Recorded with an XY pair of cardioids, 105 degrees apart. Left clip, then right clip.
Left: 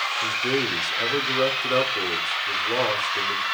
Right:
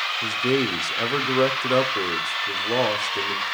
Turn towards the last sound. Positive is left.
turn(degrees=-35)